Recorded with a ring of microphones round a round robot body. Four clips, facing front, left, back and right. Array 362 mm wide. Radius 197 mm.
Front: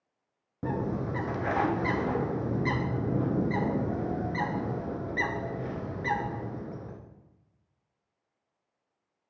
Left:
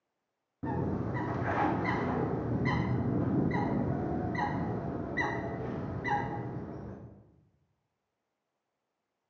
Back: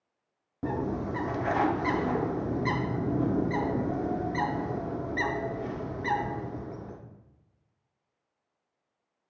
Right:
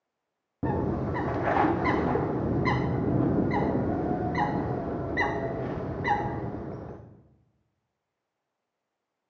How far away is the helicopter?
No helicopter in this recording.